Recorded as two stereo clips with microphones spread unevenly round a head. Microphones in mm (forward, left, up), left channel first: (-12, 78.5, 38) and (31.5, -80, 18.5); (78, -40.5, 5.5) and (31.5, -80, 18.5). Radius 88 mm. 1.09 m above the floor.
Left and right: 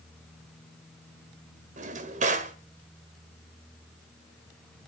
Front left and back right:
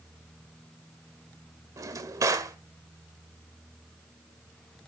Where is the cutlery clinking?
No cutlery clinking in this recording.